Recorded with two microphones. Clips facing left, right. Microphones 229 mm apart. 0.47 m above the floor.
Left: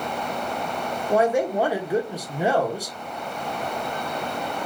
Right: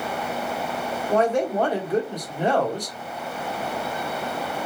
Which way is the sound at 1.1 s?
10° left (ahead or behind).